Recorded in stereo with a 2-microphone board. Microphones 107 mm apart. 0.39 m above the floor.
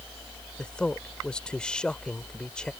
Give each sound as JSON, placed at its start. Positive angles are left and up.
{"t": 0.6, "sound": "a man speaking", "side_deg": 10}